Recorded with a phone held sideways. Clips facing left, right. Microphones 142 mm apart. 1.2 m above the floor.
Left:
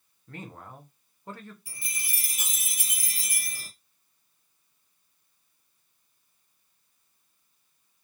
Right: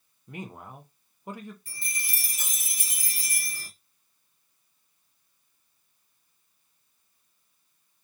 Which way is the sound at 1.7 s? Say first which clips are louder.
Right 3 dB; 10° left (ahead or behind).